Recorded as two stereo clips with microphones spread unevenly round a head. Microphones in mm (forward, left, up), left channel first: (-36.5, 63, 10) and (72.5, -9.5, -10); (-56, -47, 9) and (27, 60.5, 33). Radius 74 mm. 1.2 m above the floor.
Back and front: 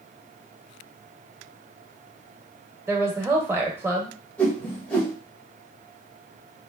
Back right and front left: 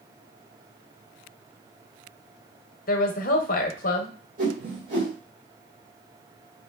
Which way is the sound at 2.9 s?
110° right.